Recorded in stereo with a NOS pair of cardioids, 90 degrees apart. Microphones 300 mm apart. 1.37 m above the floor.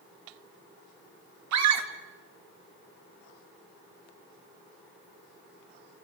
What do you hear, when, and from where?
1.5 s a scream: 65° right, 3 m